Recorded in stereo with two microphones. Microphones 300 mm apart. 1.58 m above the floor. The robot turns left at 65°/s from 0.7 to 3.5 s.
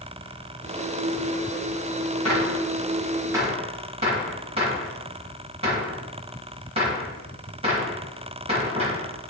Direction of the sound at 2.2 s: 60° left (ahead or behind).